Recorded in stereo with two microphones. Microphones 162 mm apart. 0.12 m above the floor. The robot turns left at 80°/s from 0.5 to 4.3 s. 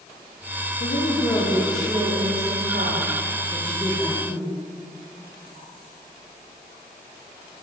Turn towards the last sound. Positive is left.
turn(degrees=160)